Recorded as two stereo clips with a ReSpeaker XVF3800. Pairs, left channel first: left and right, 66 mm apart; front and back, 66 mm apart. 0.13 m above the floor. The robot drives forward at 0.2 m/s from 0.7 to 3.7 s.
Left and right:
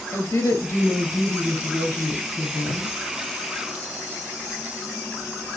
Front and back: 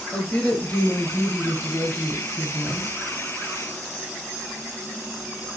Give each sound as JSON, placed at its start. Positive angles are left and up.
{"t": 0.1, "sound": "a woman speaking", "azimuth_deg": 65, "distance_m": 2.5}